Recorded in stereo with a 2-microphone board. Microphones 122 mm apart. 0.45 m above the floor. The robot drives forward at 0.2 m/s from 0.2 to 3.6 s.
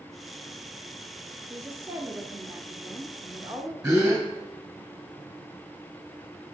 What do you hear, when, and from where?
1.5 s a woman speaking: 25° right (ahead or behind), 0.9 m; by 3.7 s 20° right (ahead or behind), 1.0 m
3.8 s a gasp: 25° right (ahead or behind), 3 m